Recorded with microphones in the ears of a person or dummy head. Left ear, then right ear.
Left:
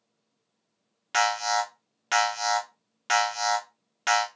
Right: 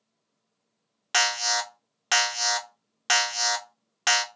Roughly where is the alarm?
Right.